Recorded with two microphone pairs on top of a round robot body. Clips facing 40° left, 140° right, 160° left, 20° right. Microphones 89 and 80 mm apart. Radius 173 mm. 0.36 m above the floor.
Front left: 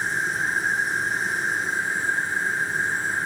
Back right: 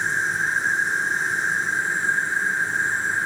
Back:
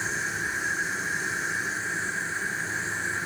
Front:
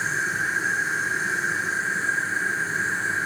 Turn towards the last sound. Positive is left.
turn(degrees=-75)